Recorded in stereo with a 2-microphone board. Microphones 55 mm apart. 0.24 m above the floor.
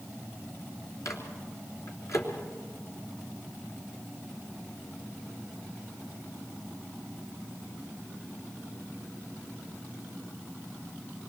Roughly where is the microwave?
Left.